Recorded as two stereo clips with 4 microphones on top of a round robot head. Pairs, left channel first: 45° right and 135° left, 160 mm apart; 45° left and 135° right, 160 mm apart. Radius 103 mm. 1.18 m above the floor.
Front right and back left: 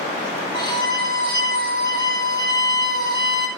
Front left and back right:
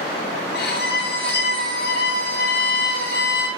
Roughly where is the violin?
Ahead.